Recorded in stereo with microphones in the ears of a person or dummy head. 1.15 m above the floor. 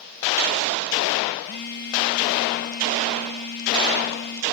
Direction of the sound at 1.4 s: 45° left (ahead or behind).